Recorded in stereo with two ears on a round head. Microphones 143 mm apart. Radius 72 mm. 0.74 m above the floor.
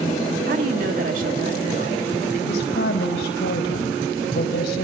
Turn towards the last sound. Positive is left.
turn(degrees=75)  # may be behind; listen again after turning